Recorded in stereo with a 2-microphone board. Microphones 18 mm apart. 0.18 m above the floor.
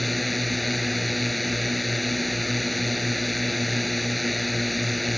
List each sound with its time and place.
0.0 s a drone: 5° left (ahead or behind)